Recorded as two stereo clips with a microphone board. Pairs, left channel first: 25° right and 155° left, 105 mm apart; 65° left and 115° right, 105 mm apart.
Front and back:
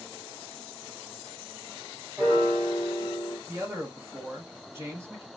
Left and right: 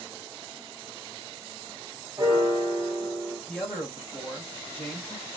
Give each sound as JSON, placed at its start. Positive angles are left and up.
{"t": 2.2, "sound": "a piano", "azimuth_deg": -140, "distance_m": 1.7}
{"t": 3.5, "sound": "a man speaking", "azimuth_deg": 135, "distance_m": 1.4}